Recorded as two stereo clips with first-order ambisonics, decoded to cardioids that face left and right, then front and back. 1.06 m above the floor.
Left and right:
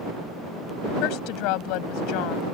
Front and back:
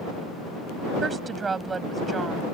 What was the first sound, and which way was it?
A woman speaking, 105° left.